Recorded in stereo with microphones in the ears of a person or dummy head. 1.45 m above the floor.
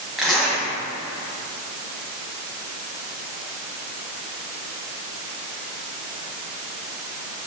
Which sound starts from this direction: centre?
A zipper, at 0.2 s.